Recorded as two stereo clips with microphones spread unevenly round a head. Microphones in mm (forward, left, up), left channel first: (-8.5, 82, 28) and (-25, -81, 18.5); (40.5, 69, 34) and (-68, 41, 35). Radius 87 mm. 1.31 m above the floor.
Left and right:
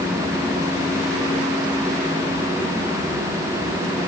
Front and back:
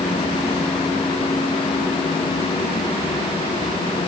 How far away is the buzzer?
I don't hear a buzzer.